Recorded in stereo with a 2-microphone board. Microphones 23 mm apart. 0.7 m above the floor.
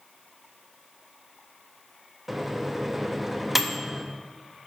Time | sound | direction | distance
2.3 | a microwave | 10° right (ahead or behind) | 0.5 m